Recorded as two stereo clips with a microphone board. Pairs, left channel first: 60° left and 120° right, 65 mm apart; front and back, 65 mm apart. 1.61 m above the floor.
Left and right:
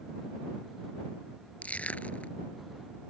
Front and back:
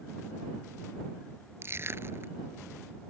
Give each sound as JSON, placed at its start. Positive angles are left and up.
{"t": 1.6, "sound": "crushing", "azimuth_deg": 130}